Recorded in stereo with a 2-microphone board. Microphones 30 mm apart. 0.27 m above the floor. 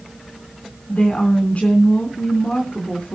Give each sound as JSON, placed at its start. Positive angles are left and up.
{"t": 0.9, "sound": "a woman speaking", "side_deg": 50, "distance_m": 3.0}